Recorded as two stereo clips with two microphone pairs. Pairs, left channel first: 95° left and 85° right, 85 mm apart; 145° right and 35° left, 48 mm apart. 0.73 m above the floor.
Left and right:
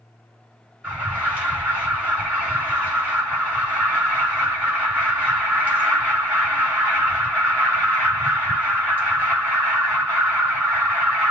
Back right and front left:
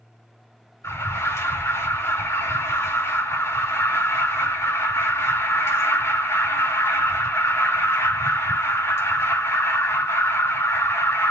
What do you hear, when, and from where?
0.8 s an alarm: 155° right, 4.5 m